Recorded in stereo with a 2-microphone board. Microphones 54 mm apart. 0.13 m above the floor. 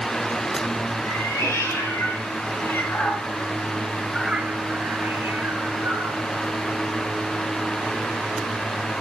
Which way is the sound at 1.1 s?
55° left (ahead or behind).